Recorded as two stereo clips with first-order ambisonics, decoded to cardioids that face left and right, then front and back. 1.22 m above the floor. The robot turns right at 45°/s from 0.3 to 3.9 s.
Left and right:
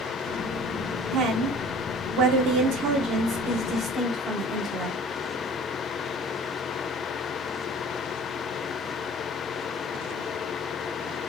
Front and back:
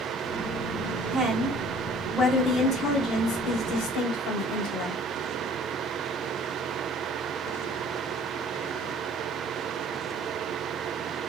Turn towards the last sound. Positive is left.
turn(degrees=-10)